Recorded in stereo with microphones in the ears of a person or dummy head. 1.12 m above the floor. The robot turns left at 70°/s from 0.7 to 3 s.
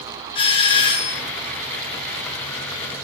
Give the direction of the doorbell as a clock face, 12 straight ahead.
8 o'clock.